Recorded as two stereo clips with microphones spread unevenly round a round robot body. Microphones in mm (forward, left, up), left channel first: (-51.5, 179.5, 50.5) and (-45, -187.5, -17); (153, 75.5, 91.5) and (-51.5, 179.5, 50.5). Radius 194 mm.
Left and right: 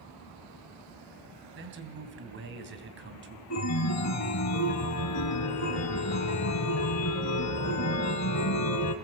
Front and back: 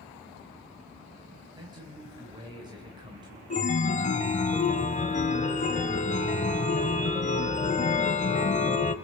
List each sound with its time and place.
1.6 s a man speaking: 140° right, 2.5 m
3.5 s a chime: 35° left, 1.1 m